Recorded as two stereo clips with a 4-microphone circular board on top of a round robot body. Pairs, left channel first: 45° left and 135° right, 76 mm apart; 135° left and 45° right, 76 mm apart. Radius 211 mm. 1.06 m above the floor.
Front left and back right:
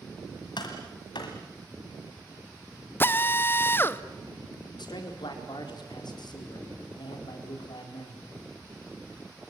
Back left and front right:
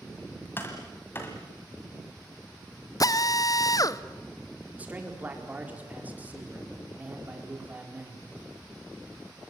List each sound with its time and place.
0.6 s tapping: 70° left, 1.5 m
3.0 s a drill: 105° left, 1.0 m
4.8 s a man speaking: 25° left, 4.5 m